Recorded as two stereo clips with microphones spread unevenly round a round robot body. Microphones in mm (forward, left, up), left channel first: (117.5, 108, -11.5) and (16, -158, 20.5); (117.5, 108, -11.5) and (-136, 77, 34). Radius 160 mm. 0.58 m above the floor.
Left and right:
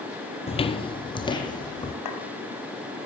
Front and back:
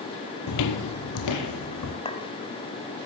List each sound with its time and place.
0.5 s footsteps: straight ahead, 1.0 m; by 1.9 s 10° right, 2.5 m
2.0 s a clink: 75° left, 2 m